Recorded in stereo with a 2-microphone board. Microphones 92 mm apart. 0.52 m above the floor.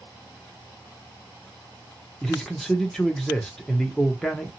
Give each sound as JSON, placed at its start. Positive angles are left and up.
{"t": 2.2, "sound": "a man speaking", "side_deg": 5, "distance_m": 0.7}